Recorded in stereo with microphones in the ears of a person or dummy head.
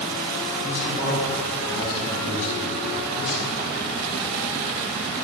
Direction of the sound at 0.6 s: 35° left (ahead or behind).